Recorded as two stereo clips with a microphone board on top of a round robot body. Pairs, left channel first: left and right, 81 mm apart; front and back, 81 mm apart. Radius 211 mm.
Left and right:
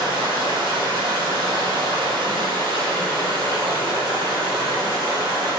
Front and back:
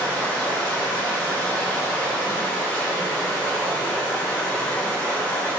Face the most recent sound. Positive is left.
turn(degrees=-75)